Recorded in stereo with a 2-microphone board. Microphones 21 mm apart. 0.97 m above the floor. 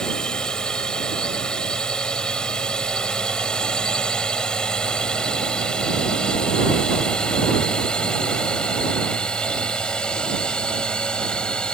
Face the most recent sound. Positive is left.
turn(degrees=40)  # may be behind; listen again after turning